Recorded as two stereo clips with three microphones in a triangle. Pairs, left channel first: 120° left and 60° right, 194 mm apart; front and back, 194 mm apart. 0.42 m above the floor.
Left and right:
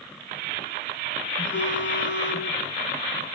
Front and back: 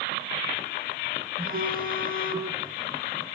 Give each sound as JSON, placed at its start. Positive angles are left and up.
{"t": 1.4, "sound": "a phone buzzing", "azimuth_deg": 140, "distance_m": 5.0}